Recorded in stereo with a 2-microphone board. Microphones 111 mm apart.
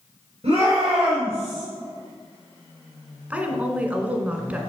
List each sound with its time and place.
0.4 s a shout: 65° right (ahead or behind), 3.5 m; by 1.6 s 55° right (ahead or behind), 3 m
3.3 s a woman speaking: 15° right (ahead or behind), 1.6 m